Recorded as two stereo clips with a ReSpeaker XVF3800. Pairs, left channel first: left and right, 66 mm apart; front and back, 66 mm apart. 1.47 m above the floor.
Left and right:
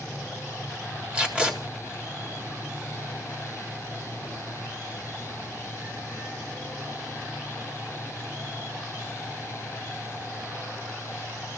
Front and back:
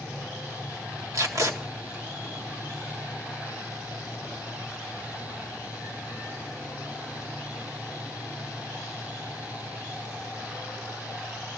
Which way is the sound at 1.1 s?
160° right.